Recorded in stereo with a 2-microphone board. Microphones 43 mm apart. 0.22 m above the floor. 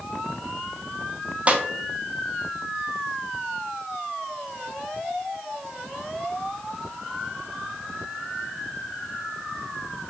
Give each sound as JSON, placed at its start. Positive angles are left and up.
{"t": 1.5, "sound": "a snare drum", "side_deg": -30, "distance_m": 0.7}